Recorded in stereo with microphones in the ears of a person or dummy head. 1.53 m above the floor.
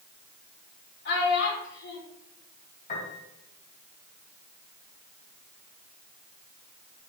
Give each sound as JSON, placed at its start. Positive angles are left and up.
{"t": 1.1, "sound": "a child speaking", "side_deg": 65, "distance_m": 4.0}
{"t": 2.9, "sound": "a piano", "side_deg": 45, "distance_m": 3.5}